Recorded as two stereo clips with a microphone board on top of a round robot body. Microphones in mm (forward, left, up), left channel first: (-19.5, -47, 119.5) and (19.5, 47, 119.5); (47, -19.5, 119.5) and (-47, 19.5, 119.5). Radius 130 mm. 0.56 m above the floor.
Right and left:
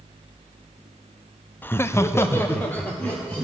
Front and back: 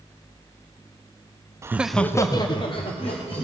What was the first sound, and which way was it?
Laughter, 170° right.